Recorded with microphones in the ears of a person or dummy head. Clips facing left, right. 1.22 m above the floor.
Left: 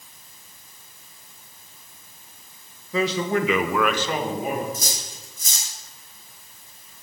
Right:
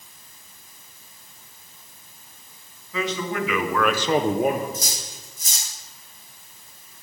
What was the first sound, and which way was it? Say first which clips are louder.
A man speaking: left 4 dB; 30° left (ahead or behind).